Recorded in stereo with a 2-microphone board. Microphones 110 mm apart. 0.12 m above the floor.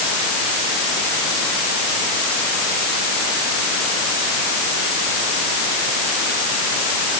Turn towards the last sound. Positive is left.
No sound to turn to.